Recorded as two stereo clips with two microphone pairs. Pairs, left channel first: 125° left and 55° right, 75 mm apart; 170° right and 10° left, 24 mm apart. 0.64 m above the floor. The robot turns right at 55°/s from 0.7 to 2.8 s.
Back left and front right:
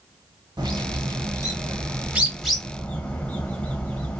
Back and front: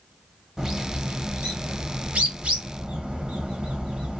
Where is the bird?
55° right, 1.0 m; by 4.2 s 60° left, 1.0 m.